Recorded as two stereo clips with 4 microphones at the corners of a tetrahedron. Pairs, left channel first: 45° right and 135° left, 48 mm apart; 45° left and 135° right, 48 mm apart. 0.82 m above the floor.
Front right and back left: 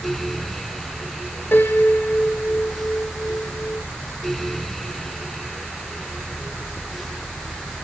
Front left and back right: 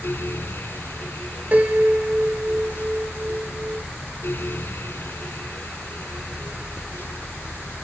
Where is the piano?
85° right, 1.7 m.